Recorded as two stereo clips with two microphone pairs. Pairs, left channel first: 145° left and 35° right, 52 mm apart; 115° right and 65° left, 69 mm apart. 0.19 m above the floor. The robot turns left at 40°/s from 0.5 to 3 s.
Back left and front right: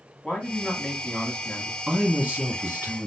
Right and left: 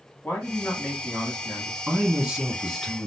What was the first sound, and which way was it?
A man speaking, 150° right.